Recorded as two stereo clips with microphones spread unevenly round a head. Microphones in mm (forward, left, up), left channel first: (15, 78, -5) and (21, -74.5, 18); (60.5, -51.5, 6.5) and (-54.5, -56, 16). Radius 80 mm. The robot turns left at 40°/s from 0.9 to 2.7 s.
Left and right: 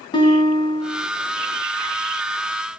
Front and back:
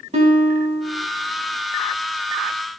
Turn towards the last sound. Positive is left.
turn(degrees=85)